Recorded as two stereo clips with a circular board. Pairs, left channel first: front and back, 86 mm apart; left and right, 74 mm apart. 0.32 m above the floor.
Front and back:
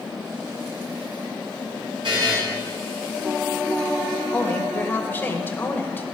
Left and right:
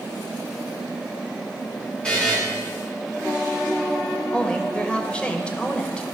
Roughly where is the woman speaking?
Ahead left.